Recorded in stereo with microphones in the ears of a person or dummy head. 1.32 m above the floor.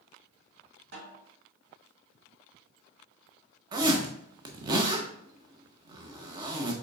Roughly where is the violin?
I don't hear a violin.